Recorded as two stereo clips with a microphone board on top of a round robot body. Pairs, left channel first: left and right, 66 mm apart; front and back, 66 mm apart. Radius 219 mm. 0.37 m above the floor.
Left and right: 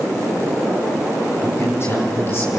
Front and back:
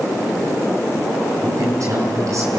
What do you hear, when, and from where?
1.4 s a man speaking: 140° left, 5 m